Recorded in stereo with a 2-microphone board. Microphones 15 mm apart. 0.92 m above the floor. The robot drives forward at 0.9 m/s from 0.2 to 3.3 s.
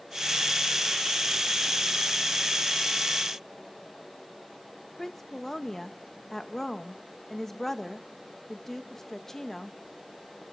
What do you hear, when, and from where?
5.0 s a woman speaking: 25° left (ahead or behind), 1.1 m